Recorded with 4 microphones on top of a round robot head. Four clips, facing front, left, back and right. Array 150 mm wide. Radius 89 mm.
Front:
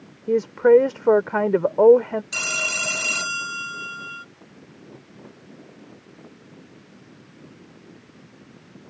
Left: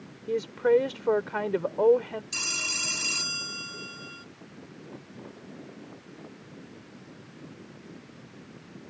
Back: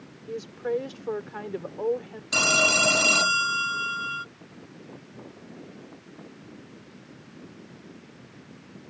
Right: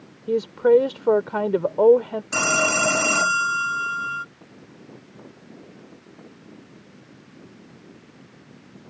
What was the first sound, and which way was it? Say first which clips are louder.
A woman speaking: right 6 dB, front 15 dB; 30° right.